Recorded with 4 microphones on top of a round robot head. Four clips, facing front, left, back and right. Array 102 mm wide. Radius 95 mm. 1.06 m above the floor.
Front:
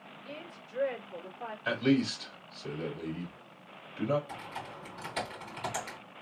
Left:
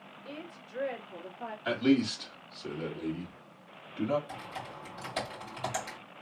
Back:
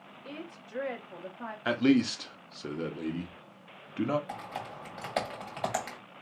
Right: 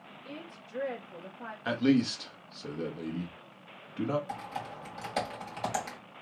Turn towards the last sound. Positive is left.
turn(degrees=-160)